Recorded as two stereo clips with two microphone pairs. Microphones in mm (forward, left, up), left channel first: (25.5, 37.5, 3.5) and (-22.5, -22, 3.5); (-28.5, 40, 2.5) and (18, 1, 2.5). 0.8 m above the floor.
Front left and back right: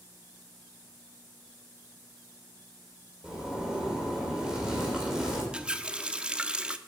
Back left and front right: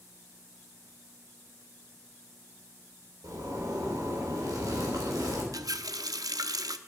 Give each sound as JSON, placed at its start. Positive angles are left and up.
{"t": 3.2, "sound": "a zipper", "azimuth_deg": -45, "distance_m": 3.5}
{"t": 5.5, "sound": "a running tap", "azimuth_deg": -50, "distance_m": 0.7}